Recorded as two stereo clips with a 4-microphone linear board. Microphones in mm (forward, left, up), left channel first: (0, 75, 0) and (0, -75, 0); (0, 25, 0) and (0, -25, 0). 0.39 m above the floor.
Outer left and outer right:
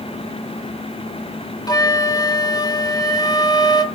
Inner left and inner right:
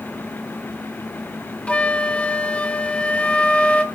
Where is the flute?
30° left (ahead or behind), 0.8 m.